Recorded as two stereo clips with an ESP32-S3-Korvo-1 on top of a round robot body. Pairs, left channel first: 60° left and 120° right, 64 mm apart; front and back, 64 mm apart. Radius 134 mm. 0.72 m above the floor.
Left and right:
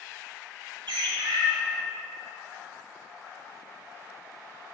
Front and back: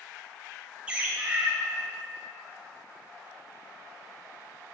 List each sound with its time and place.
0.9 s a bird: 105° right, 0.6 m